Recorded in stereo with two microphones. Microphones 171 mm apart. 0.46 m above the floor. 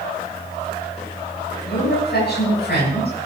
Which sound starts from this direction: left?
A woman speaking, at 1.6 s.